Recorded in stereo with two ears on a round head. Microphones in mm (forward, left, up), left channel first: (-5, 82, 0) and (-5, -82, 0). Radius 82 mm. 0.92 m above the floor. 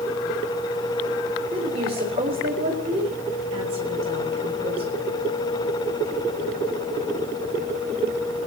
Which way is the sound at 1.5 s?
35° right (ahead or behind).